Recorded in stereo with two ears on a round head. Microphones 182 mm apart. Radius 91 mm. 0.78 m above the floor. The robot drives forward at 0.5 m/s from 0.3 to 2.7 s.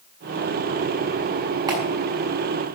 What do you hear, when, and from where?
1.7 s a clap: 20° right (ahead or behind), 6 m